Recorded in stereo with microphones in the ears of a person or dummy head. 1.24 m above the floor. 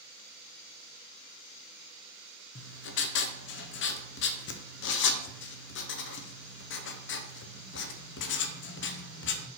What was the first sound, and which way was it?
Writing, 55° left (ahead or behind).